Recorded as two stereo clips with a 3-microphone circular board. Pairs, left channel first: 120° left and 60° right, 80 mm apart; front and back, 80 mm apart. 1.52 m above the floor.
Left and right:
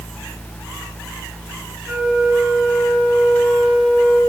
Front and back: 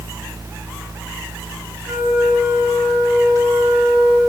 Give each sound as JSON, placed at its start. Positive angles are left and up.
{"t": 1.9, "sound": "a flute", "azimuth_deg": -125, "distance_m": 2.5}